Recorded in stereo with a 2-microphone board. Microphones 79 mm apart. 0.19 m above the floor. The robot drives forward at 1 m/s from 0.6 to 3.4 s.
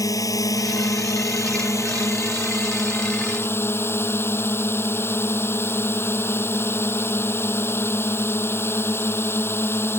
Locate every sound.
0.0 s a drone: 45° left (ahead or behind); by 10.0 s 30° left (ahead or behind)